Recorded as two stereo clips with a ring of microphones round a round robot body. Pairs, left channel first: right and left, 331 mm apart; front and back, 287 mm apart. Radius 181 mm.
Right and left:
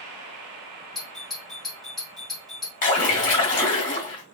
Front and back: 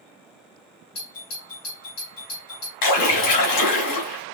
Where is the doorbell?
Straight ahead, 3 m.